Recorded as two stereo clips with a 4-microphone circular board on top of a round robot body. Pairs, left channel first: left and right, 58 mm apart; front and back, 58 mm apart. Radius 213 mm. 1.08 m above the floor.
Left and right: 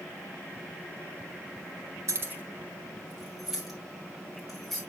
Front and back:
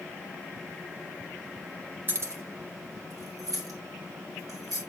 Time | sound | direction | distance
2.1 | keys jangling | 125° right | 0.7 m